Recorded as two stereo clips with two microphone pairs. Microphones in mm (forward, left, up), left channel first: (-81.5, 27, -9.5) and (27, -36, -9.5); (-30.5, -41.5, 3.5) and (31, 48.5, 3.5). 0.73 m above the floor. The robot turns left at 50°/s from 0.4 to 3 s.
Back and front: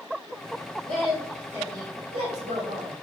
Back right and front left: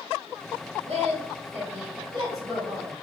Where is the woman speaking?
75° left, 1.5 m; by 2.9 s 30° right, 1.5 m.